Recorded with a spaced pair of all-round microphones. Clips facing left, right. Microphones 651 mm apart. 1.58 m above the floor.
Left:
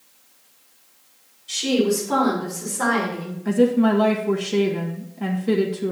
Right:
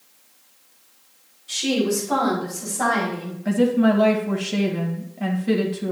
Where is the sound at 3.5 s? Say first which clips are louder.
Left 1 dB; 15° right (ahead or behind), 1.2 m.